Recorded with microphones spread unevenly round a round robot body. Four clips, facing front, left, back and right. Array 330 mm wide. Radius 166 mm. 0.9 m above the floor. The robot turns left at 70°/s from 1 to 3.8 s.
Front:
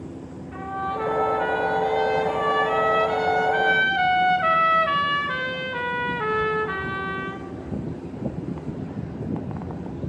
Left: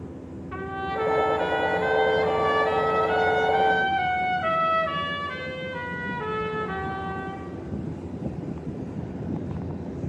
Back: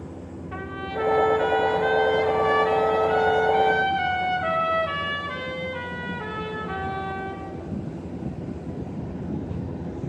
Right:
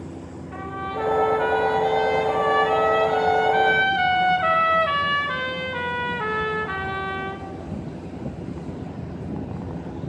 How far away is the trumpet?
About 1.3 m.